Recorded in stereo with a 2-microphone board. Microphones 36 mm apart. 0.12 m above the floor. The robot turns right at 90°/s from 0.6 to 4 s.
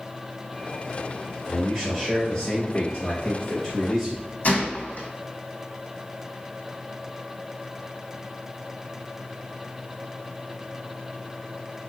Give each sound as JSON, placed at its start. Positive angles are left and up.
{"t": 1.5, "sound": "a man speaking", "azimuth_deg": -35, "distance_m": 1.8}
{"t": 4.4, "sound": "a gunshot", "side_deg": 50, "distance_m": 1.0}